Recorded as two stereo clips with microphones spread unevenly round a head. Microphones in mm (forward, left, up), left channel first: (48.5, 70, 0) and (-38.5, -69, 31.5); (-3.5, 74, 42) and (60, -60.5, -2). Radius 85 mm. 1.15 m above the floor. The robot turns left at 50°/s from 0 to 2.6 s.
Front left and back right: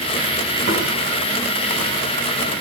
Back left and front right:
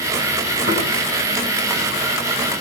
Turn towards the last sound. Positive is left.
turn(degrees=165)